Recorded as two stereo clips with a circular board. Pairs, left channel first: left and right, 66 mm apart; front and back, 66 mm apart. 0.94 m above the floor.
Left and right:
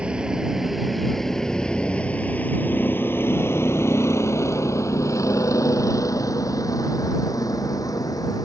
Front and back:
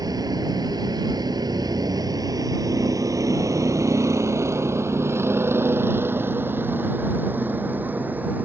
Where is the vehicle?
165° right; by 8.5 s 115° left.